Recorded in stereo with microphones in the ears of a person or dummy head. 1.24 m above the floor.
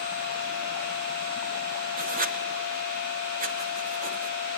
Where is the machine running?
45° right (ahead or behind), 7.5 m.